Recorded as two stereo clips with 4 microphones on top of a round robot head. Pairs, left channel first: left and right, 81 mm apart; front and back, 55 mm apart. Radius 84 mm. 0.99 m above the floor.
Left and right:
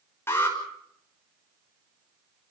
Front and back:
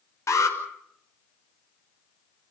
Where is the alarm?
25° left, 5 m.